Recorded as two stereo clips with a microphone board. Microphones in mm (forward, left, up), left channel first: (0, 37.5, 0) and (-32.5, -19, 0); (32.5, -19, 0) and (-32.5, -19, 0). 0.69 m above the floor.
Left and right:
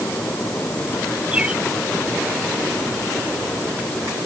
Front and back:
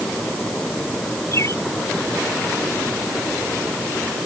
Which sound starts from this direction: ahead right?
A bird, at 1.3 s.